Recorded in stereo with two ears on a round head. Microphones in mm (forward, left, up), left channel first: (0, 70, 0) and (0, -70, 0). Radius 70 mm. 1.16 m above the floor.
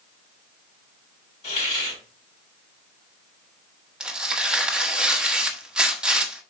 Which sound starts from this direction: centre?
Tearing paper, at 4.0 s.